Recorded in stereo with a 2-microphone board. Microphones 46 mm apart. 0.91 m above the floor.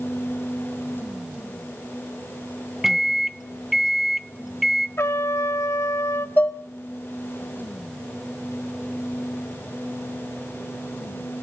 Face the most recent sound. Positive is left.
turn(degrees=35)  # may be behind; listen again after turning